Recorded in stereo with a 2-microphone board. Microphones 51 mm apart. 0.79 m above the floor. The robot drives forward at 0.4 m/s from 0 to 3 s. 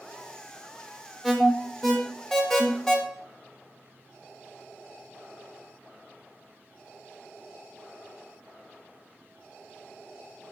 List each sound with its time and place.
1.2 s an alarm: 5° left (ahead or behind), 1.3 m; by 3.0 s 10° left (ahead or behind), 0.6 m